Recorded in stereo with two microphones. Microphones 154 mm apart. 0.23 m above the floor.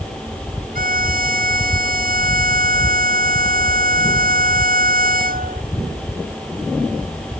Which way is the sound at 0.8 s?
65° right (ahead or behind).